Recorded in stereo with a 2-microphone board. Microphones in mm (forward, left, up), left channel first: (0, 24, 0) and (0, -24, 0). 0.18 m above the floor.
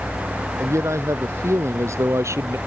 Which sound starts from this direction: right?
A man speaking, at 0.6 s.